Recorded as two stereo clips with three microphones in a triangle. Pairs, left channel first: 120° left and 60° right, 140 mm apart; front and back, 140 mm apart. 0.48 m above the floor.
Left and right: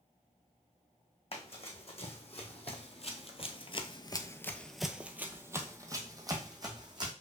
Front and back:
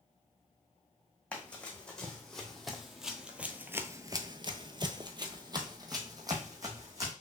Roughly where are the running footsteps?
Left.